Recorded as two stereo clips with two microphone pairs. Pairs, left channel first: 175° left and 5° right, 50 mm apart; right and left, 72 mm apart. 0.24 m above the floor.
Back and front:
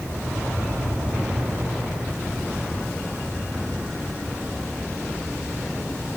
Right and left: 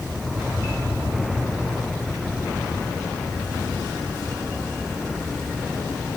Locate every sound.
Only background noise.